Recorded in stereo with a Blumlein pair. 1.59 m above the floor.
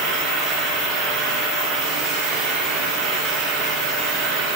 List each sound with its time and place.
0.0 s a fan: 30° right, 3.5 m